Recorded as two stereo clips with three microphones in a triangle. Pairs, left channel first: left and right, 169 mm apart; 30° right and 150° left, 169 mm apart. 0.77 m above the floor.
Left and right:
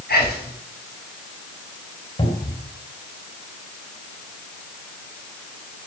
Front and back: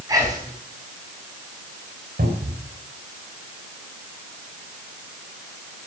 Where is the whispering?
80° left, 6 m.